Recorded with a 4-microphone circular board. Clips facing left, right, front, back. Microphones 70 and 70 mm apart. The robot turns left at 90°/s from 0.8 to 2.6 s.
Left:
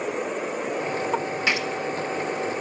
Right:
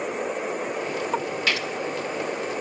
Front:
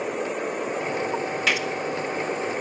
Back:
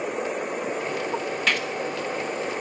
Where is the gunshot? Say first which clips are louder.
Left 2 dB, even; 80° left, 1.0 m; by 1.7 s 60° left, 1.0 m.